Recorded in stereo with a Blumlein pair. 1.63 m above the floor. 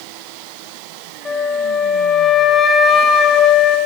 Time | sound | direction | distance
1.2 | a flute | 15° left | 2.0 m